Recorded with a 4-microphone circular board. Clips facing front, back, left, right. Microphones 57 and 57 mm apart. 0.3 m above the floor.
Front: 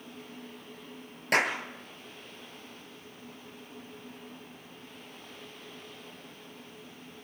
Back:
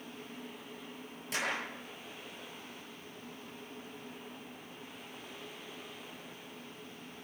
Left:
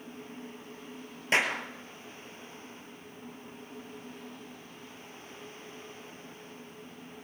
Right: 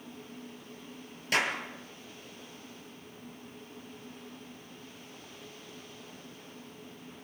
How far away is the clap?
About 4 m.